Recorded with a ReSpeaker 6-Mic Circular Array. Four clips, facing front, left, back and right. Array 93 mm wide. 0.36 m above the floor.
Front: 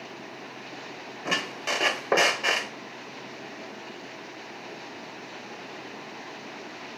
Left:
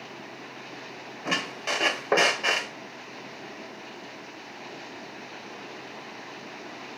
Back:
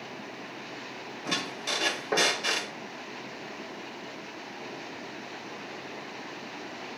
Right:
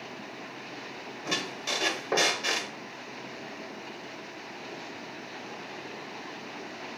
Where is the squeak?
40° left, 1.0 m.